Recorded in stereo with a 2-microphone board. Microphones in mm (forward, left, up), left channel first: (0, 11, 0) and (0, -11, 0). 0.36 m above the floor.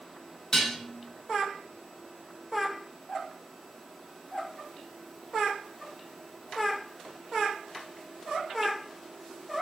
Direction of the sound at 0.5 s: 25° left (ahead or behind).